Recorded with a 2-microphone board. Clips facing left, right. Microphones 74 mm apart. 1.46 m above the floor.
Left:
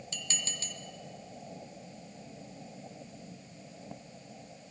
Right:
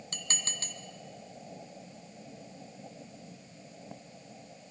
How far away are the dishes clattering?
About 1.1 m.